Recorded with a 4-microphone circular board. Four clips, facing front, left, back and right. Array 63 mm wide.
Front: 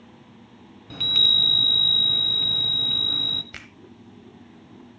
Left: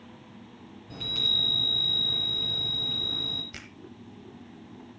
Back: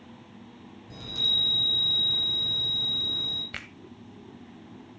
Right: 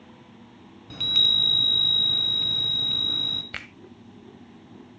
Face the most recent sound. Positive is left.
turn(degrees=-105)